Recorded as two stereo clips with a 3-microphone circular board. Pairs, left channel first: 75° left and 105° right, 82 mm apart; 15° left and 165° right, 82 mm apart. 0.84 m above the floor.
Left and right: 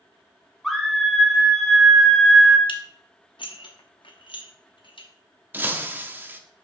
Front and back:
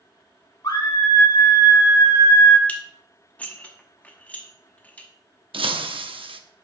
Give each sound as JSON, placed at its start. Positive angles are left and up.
{"t": 0.6, "sound": "a scream", "azimuth_deg": -15, "distance_m": 2.0}
{"t": 2.7, "sound": "dishes clattering", "azimuth_deg": 90, "distance_m": 0.9}
{"t": 5.5, "sound": "breaking glass", "azimuth_deg": -170, "distance_m": 0.6}